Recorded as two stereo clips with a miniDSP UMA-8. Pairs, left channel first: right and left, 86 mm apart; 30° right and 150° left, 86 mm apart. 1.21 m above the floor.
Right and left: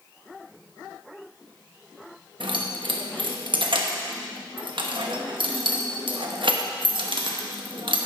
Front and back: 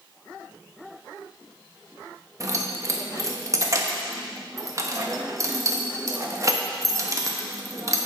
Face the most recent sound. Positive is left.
turn(degrees=100)